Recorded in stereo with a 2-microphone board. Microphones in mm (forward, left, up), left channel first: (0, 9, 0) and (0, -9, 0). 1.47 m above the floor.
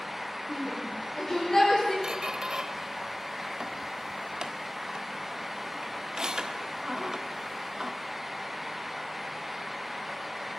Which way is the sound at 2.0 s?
45° right (ahead or behind).